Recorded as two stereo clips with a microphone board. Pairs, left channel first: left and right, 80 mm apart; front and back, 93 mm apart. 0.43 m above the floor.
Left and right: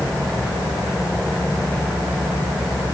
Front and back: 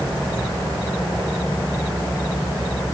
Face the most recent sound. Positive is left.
No sound to turn to.